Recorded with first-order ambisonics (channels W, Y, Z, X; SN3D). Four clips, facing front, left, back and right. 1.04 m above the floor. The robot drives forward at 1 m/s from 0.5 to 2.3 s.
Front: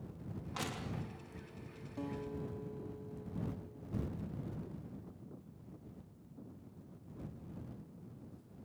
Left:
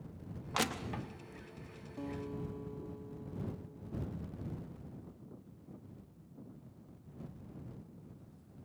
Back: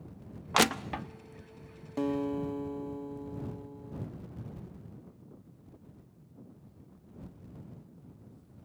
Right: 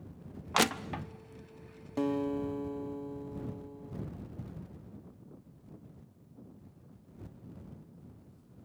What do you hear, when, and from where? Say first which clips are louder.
0.5 s crushing: right 6 dB, back 16 dB; 150° right, 0.6 m; by 1.1 s 165° right, 1.1 m
2.0 s a guitar: right 11 dB, back 11 dB; 130° right, 1.1 m; by 4.1 s 140° right, 1.4 m